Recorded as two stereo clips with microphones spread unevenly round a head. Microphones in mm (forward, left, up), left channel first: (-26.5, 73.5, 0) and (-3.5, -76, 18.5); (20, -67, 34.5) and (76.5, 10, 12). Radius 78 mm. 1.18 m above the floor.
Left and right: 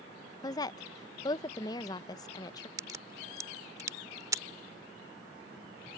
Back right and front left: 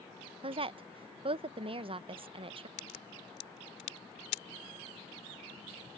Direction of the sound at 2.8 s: 150° right.